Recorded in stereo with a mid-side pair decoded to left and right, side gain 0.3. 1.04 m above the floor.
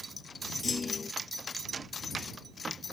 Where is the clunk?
45° left.